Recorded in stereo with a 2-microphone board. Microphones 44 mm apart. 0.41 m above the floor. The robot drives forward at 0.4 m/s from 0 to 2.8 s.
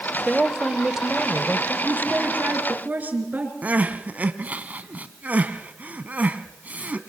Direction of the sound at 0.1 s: 10° right (ahead or behind).